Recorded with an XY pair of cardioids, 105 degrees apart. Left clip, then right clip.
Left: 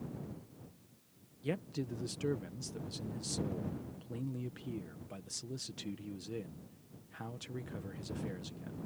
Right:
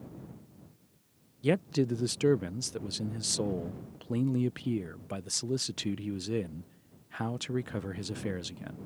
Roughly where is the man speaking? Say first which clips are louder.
Right 11 dB; right.